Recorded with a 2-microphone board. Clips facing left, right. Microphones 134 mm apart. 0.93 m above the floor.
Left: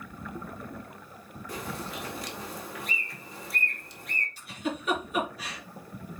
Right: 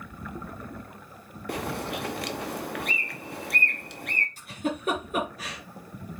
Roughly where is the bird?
Right.